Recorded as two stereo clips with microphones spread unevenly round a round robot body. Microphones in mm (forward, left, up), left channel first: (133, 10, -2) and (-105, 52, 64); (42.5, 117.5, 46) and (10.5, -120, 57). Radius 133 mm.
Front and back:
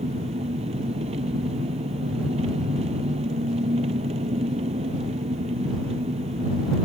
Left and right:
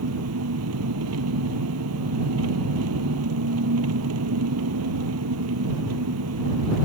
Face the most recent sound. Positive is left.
turn(degrees=-125)